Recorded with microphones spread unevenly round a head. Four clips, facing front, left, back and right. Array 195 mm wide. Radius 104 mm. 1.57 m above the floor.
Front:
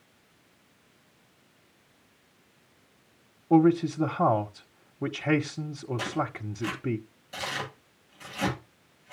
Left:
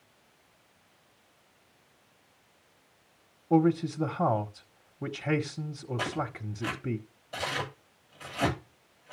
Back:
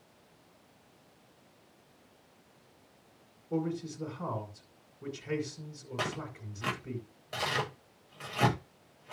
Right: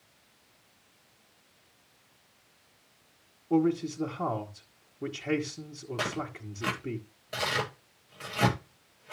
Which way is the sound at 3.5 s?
10° left.